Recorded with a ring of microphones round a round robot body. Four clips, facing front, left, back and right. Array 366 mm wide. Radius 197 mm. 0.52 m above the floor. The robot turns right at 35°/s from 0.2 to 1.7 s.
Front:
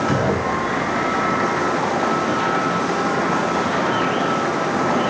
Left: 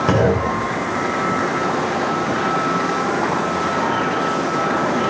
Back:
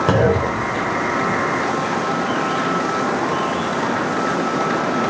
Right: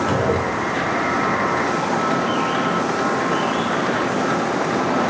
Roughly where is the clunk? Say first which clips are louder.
Left 3 dB, back 3 dB; behind left.